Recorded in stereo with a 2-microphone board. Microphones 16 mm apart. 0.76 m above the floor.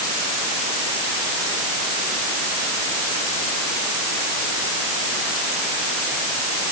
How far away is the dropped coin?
No dropped coin in this recording.